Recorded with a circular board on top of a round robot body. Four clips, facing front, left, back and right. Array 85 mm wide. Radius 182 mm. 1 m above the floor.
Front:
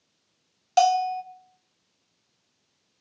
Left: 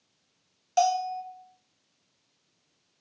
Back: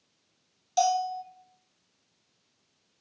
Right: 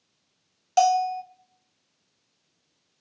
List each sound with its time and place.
0.8 s a bell: 20° right, 0.6 m